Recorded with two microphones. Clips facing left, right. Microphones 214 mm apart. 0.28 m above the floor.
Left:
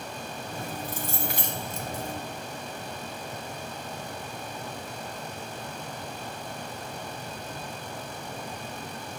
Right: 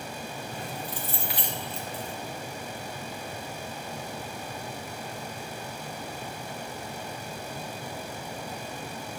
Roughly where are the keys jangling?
Left.